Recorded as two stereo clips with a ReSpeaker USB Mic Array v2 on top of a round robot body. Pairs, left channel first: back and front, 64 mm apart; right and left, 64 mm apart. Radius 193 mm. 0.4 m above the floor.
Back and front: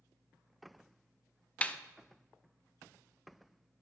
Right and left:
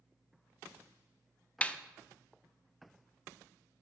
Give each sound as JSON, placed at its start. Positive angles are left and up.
{"t": 1.6, "sound": "a snare drum", "azimuth_deg": -135, "distance_m": 0.6}